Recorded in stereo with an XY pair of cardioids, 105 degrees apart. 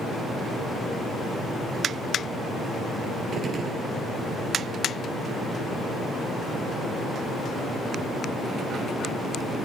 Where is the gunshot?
50° right, 1.0 m.